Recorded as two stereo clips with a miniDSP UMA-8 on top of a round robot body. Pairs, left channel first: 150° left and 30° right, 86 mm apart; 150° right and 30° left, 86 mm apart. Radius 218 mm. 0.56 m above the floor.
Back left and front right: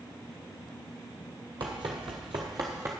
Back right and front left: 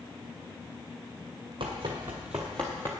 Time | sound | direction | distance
1.6 | running footsteps | 5° left | 0.8 m